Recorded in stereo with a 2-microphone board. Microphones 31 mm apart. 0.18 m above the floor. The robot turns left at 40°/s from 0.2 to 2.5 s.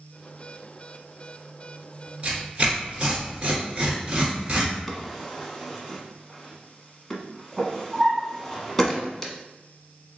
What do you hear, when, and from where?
2.2 s tearing paper: 45° right (ahead or behind), 1.8 m; by 4.7 s 35° right (ahead or behind), 1.8 m
4.9 s a drawer: 10° left (ahead or behind), 0.9 m